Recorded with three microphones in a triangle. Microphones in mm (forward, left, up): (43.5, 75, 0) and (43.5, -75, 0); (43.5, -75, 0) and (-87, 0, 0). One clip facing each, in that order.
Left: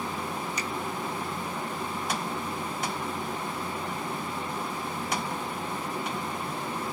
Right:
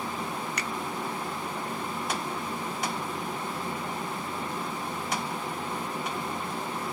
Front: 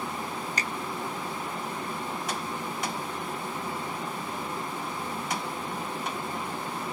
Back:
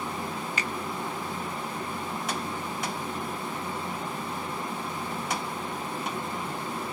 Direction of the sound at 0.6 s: 80° right.